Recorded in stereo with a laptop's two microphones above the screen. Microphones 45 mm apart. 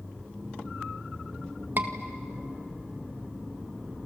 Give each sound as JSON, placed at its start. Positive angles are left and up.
{"t": 1.8, "sound": "a scream", "side_deg": -45, "distance_m": 1.7}